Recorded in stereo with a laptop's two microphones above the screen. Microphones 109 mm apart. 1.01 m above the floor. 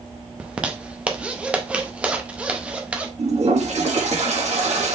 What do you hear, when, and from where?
0.4 s a zipper: 10° right (ahead or behind), 0.5 m
3.2 s a toilet flushing: 85° right, 1.2 m